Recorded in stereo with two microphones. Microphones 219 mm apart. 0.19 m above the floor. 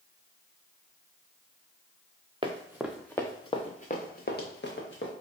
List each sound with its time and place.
2.4 s running footsteps: 25° right (ahead or behind), 0.9 m; by 5.1 s 55° left (ahead or behind), 1.8 m